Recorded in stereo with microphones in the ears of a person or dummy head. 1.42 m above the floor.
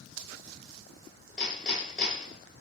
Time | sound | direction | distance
1.4 | hammering | 5° right (ahead or behind) | 2.0 m